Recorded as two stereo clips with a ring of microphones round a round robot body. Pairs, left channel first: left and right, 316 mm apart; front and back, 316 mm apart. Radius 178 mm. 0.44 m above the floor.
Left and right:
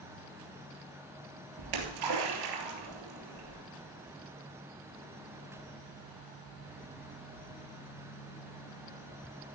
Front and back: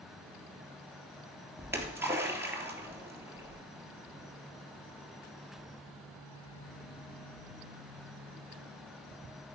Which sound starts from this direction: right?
A splash, at 1.6 s.